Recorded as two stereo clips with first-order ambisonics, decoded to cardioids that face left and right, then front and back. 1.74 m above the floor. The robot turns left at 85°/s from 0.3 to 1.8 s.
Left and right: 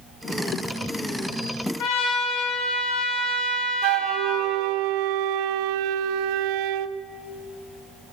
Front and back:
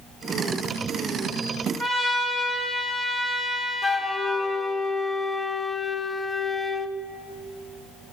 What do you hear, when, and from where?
1.8 s a trumpet: 85° left, 3 m; by 4.5 s 80° left, 3 m
3.8 s a flute: 75° right, 0.5 m